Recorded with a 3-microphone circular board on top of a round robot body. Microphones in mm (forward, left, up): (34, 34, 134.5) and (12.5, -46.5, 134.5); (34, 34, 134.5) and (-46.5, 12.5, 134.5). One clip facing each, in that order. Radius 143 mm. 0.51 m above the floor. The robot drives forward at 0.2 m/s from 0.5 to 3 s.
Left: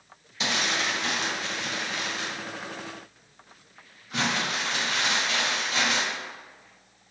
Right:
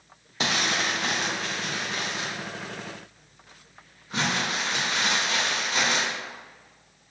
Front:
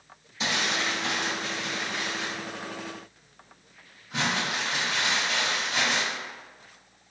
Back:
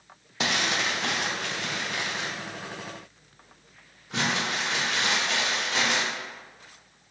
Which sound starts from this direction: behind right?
Crumpling, at 0.4 s.